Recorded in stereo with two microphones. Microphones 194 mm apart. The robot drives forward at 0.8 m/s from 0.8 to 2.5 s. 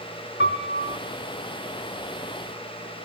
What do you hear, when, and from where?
0.4 s a piano: 75° left (ahead or behind), 2 m; by 1.0 s 70° left (ahead or behind), 2 m